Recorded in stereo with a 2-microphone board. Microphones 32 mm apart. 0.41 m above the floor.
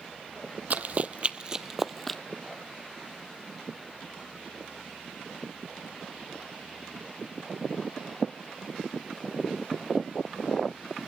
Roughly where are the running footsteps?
Right.